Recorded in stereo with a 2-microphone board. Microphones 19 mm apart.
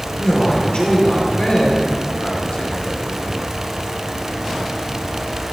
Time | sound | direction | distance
0.1 | a man speaking | 70° left (ahead or behind) | 2.5 m